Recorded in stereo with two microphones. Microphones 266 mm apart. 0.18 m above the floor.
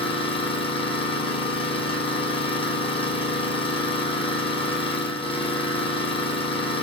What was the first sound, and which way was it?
An engine running, 20° left (ahead or behind).